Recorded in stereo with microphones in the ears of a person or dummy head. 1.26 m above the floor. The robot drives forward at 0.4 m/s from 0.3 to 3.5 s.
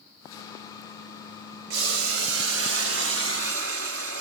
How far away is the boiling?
About 1.3 m.